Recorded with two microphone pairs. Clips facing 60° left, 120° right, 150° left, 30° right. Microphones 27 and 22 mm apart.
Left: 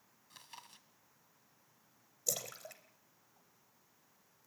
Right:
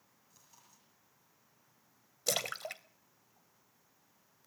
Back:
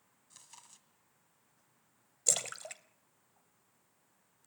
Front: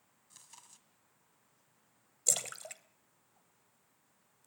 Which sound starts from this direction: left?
Chewing, at 0.3 s.